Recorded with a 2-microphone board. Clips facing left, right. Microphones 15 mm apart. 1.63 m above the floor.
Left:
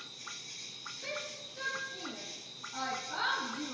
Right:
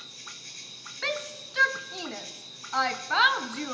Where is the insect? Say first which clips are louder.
Right 2 dB; 80° right, 5.5 m.